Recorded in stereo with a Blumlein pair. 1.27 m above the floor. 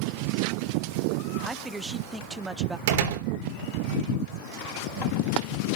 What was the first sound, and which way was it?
A man speaking, 10° right.